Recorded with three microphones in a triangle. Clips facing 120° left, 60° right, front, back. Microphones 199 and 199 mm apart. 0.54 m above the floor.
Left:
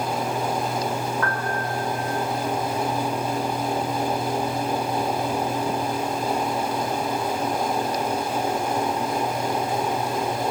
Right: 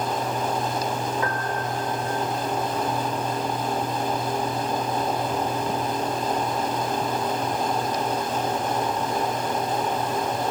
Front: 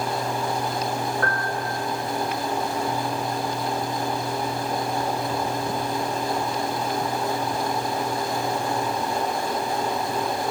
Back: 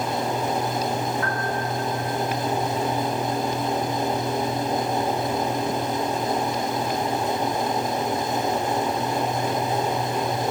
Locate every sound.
1.2 s a piano: 10° left, 2.5 m